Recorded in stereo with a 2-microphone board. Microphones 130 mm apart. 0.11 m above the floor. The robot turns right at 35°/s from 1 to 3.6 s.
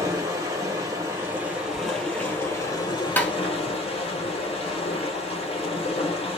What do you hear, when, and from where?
0.0 s running water: 30° right, 2 m; by 6.4 s 60° left, 2 m
3.2 s tapping: 15° left (ahead or behind), 0.8 m; by 3.3 s 10° left (ahead or behind), 0.8 m